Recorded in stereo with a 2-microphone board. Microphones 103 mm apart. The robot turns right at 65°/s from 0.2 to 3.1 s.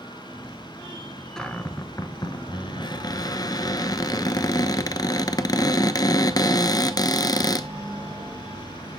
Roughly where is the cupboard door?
Ahead.